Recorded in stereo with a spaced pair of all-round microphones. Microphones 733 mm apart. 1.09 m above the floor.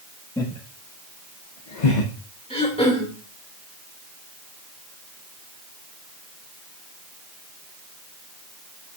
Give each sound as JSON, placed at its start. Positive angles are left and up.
{"t": 0.4, "sound": "laughter", "side_deg": 5, "distance_m": 1.7}
{"t": 2.5, "sound": "throat clearing", "side_deg": 5, "distance_m": 2.5}